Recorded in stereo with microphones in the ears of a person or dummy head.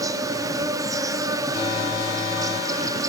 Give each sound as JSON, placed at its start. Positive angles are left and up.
{"t": 0.0, "sound": "an insect", "side_deg": -15, "distance_m": 1.1}
{"t": 1.5, "sound": "an alarm", "side_deg": 35, "distance_m": 7.5}